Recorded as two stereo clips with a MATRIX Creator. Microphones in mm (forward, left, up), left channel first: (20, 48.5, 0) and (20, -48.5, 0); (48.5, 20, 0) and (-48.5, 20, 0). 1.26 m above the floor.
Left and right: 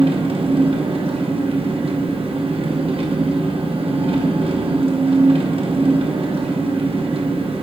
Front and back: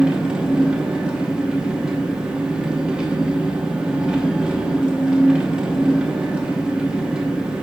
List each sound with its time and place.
0.0 s an engine running: 100° right, 0.9 m